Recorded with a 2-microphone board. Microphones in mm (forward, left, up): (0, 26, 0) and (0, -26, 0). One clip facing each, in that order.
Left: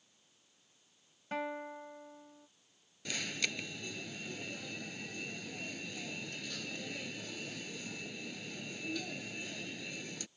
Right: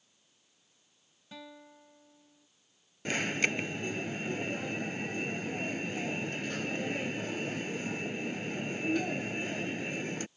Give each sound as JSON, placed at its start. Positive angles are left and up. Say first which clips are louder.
{"t": 1.3, "sound": "a guitar", "louder": "left 10 dB", "side_deg": 50}
{"t": 3.0, "sound": "an alarm", "louder": "right 8 dB", "side_deg": -40}